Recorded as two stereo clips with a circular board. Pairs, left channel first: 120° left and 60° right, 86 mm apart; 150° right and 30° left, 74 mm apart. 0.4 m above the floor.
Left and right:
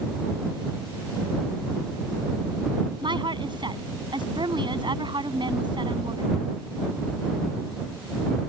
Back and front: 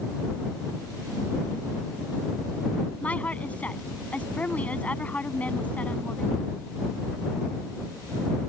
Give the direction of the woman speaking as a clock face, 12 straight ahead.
3 o'clock.